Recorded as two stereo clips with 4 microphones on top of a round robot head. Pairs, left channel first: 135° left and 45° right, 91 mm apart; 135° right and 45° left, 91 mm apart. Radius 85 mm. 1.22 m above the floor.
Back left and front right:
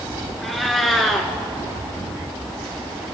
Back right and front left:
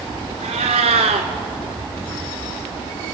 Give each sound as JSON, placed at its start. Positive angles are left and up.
{"t": 0.4, "sound": "a cat meowing", "azimuth_deg": 45, "distance_m": 1.5}